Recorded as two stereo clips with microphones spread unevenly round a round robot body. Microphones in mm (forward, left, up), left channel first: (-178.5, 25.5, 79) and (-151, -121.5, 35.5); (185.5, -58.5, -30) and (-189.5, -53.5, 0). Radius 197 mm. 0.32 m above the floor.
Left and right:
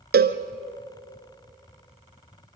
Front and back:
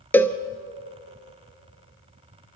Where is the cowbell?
85° right, 0.9 m.